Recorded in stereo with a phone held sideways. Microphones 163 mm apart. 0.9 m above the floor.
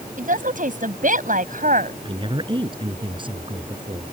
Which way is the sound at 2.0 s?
30° right (ahead or behind).